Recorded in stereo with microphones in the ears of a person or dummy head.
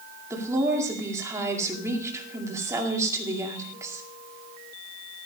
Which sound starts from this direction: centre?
A woman speaking, at 0.3 s.